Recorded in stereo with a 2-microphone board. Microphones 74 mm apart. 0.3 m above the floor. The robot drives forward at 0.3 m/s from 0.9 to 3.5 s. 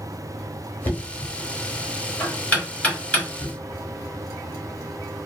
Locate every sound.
0.8 s knocking: 25° left (ahead or behind), 0.9 m; by 3.5 s 15° left (ahead or behind), 1.4 m